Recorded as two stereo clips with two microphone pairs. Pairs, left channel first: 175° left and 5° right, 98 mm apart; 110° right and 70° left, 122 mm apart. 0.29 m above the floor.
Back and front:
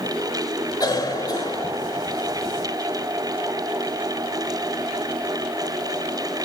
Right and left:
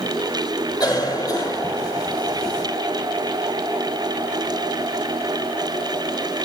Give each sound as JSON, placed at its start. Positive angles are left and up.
{"t": 0.8, "sound": "a cough", "azimuth_deg": -150, "distance_m": 1.9}